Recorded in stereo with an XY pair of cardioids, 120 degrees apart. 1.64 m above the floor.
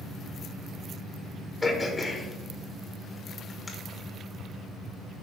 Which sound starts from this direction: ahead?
Throat clearing, at 1.6 s.